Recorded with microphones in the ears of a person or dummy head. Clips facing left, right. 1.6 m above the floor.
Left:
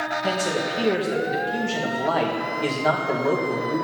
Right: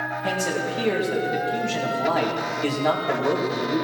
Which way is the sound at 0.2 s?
10° left (ahead or behind).